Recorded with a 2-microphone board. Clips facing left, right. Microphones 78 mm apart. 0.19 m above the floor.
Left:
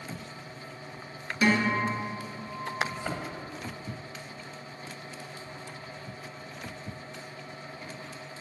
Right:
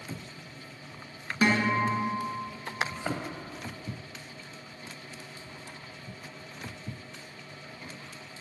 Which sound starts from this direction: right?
A guitar, at 1.4 s.